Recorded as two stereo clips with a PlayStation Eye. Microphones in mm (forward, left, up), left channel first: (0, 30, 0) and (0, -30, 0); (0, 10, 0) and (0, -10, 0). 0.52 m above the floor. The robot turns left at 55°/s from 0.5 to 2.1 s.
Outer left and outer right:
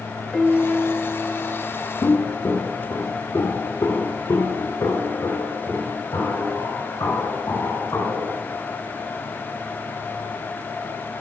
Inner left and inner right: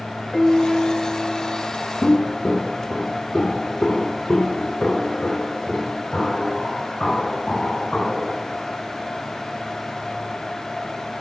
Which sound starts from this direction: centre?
A piano, at 0.3 s.